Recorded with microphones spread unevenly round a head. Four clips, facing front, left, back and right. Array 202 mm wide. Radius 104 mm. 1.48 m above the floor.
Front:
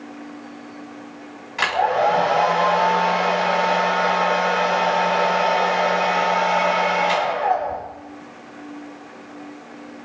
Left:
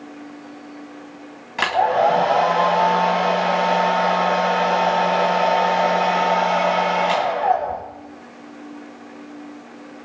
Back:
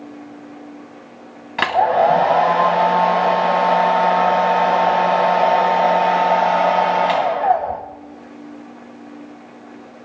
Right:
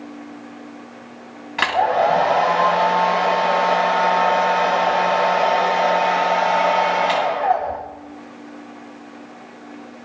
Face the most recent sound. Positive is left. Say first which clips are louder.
# even, back 4 dB
turn(degrees=175)